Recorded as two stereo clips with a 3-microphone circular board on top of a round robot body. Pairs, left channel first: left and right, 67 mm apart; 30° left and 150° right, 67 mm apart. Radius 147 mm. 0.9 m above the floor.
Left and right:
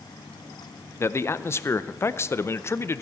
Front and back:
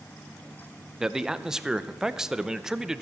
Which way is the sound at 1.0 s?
130° left.